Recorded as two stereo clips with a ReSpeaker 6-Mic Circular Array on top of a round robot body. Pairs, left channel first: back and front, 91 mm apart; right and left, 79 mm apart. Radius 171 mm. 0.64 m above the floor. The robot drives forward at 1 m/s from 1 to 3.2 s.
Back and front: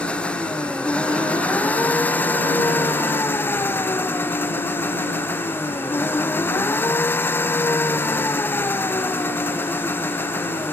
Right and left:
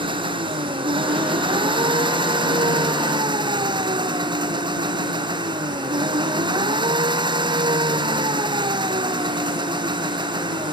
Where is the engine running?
105° left; by 10.7 s 115° left.